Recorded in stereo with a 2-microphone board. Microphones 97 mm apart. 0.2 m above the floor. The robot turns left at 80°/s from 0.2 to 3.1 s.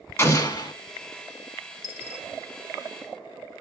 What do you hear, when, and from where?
0.2 s an explosion: 145° left, 0.7 m; by 0.7 s 105° left, 0.7 m
1.8 s a dropped coin: 35° right (ahead or behind), 0.5 m; by 2.2 s 5° right (ahead or behind), 0.5 m